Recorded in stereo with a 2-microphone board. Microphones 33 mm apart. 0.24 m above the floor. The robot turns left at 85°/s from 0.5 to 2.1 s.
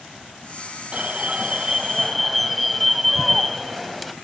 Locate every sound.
0.9 s an alarm: 30° right (ahead or behind), 1.3 m; by 4.1 s centre (ahead or behind), 1.3 m